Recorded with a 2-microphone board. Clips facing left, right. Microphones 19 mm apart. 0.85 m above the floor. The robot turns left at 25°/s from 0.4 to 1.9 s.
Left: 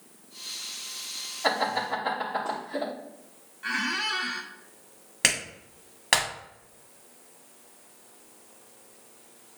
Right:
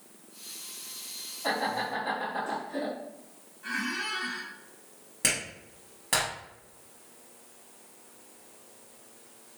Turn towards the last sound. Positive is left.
turn(degrees=40)  # may be behind; listen again after turning